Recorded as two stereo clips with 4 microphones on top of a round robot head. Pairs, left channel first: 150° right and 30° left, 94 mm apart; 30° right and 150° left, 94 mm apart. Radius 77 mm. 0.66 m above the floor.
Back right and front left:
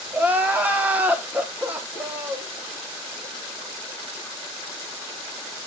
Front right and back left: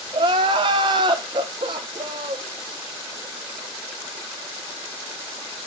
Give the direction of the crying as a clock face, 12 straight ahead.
8 o'clock.